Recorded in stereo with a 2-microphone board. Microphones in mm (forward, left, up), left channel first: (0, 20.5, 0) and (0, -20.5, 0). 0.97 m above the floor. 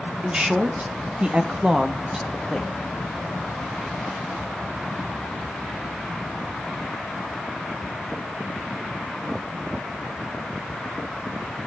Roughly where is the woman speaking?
Right.